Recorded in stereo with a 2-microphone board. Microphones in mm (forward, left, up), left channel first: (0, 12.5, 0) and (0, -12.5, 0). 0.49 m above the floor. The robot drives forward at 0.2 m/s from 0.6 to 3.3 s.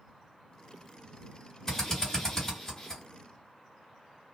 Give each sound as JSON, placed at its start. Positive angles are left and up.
{"t": 1.7, "sound": "a drill", "side_deg": 20, "distance_m": 2.0}